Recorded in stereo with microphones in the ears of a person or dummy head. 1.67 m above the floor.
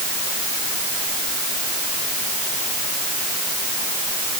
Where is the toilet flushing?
No toilet flushing in this recording.